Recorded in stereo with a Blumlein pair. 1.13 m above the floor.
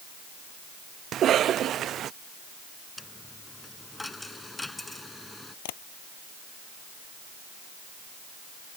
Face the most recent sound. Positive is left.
turn(degrees=50)